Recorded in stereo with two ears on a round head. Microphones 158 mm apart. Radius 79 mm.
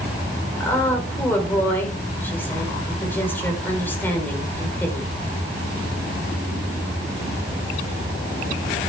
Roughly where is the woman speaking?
Centre.